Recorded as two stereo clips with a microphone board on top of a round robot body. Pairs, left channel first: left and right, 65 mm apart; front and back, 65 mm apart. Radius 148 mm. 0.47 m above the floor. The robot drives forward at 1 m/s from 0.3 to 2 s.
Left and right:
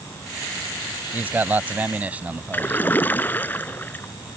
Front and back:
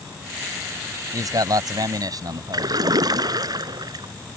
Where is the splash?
155° left.